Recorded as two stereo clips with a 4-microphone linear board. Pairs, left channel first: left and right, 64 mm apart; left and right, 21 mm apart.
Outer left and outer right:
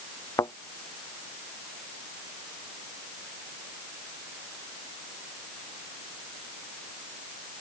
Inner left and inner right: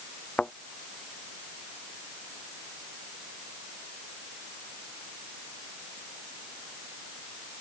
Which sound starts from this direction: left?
A thud, at 0.4 s.